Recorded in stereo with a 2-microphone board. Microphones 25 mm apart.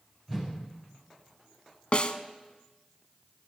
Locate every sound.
0.3 s a whoosh: 10° right (ahead or behind), 9 m
1.9 s a snare drum: 45° left (ahead or behind), 0.7 m